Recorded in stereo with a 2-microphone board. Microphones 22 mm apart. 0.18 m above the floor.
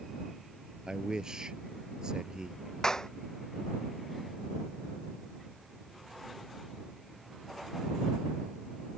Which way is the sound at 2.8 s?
30° left (ahead or behind).